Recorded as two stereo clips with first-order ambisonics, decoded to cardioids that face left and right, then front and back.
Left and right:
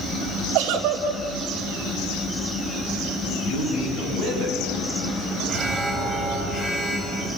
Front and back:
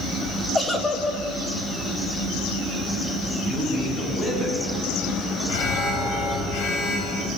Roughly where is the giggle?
Right.